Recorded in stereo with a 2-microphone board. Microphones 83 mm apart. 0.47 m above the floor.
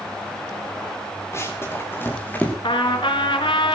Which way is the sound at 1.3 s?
35° left (ahead or behind).